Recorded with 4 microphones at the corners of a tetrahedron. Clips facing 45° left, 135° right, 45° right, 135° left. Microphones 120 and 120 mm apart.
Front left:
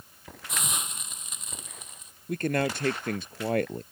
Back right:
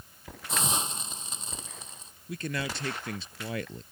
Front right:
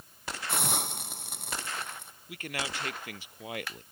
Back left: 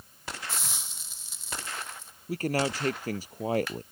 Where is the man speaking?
85° left.